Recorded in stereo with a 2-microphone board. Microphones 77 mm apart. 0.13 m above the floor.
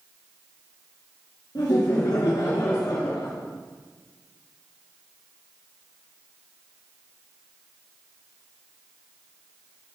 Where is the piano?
I don't hear a piano.